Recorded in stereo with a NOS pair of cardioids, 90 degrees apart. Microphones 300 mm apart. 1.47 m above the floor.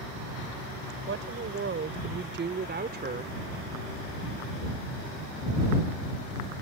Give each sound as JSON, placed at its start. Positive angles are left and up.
{"t": 1.1, "sound": "a woman speaking", "azimuth_deg": -45}